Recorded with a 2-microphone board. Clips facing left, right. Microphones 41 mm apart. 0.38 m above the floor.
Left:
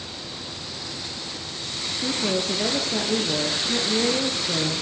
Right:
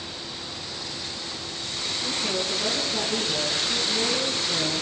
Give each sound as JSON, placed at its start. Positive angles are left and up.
{"t": 2.0, "sound": "a woman speaking", "side_deg": 65, "distance_m": 7.0}